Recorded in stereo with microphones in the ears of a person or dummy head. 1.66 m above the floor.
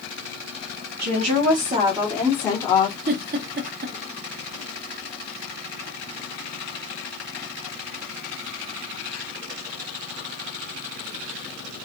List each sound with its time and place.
1.0 s a woman speaking: 60° right (ahead or behind), 1.1 m; by 3.0 s 25° left (ahead or behind), 1.2 m
3.1 s a giggle: 50° right (ahead or behind), 0.8 m